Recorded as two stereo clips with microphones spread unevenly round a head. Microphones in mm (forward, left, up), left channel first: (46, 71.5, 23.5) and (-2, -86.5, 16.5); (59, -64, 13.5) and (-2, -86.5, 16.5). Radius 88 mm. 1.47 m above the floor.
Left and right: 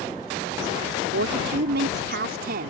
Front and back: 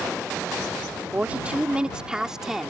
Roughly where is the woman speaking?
Right.